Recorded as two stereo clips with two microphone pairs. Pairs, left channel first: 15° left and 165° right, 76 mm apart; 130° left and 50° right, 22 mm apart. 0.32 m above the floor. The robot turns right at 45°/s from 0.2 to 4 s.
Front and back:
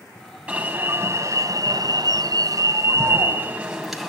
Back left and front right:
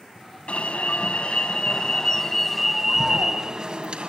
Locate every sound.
0.5 s an alarm: 125° left, 3.5 m; by 4.1 s 75° right, 3.5 m